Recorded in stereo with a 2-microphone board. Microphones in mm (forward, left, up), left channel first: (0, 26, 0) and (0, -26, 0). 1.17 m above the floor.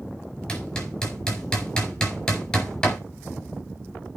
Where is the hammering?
15° left (ahead or behind), 4.5 m.